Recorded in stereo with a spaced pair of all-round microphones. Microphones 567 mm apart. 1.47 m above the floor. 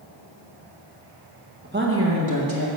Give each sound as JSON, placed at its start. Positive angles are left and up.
{"t": 1.6, "sound": "a woman speaking", "side_deg": -15, "distance_m": 1.4}